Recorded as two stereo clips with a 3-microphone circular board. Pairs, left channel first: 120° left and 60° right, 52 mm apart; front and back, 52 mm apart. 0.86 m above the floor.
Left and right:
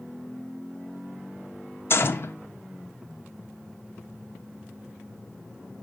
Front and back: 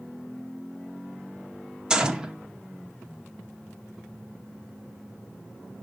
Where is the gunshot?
110° left, 0.7 m.